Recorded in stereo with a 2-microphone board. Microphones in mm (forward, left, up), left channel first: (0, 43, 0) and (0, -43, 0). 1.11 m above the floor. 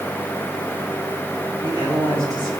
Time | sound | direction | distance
1.6 | a man speaking | 50° right (ahead or behind) | 7 m